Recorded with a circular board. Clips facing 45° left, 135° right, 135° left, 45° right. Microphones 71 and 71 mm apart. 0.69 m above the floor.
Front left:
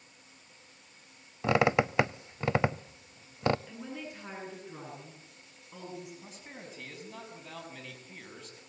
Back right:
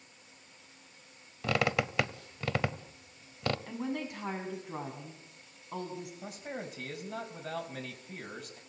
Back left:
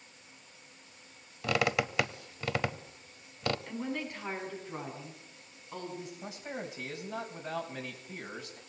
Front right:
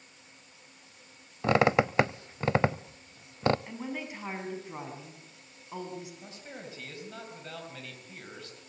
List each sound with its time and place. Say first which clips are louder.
1.4 s a squeak: front left 5 dB, front right 6 dB; 5° right, 0.5 m
3.7 s a woman speaking: back right 6 dB, back left 1 dB; 125° right, 6 m
6.2 s a man speaking: back right 7 dB, back left 4 dB; 155° right, 4 m